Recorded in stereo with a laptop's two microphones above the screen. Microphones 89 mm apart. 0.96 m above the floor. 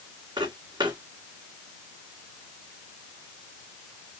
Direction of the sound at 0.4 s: 60° right (ahead or behind).